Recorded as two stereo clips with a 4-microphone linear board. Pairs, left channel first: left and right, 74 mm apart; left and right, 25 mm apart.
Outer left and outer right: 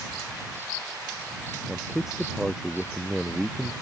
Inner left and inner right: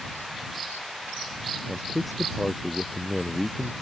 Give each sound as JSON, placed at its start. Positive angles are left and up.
{"t": 1.7, "sound": "a man speaking", "side_deg": -10}